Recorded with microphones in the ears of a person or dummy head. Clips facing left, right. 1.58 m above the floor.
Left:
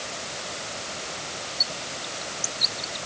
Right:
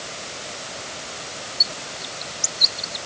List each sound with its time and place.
1.6 s a bird: 20° right (ahead or behind)